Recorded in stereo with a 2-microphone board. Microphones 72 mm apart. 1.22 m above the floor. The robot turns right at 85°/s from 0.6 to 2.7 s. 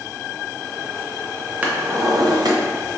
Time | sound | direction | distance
1.6 | a drawer | 160° right | 0.6 m